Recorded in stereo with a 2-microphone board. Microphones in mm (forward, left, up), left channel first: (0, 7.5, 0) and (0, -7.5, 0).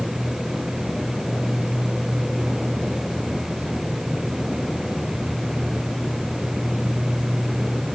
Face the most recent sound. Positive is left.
No sound to turn to.